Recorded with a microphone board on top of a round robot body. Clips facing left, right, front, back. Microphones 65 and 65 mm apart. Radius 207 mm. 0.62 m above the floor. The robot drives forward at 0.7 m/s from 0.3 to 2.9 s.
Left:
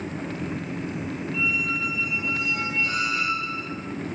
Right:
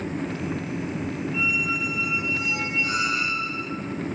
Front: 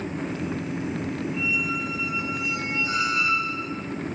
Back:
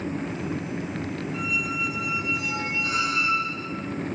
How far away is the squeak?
About 3.5 m.